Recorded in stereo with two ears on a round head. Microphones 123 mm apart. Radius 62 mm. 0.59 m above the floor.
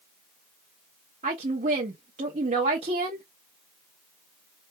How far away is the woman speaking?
About 1.3 m.